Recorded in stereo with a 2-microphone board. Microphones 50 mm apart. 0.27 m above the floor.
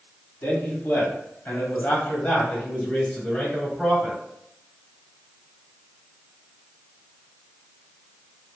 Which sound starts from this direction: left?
A man speaking, at 0.4 s.